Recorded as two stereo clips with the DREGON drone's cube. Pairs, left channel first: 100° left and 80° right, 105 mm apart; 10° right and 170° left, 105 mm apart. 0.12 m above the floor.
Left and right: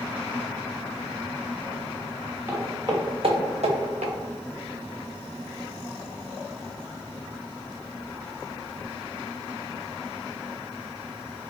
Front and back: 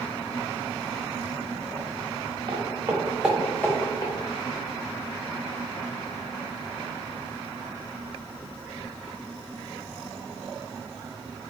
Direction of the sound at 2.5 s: 145° right.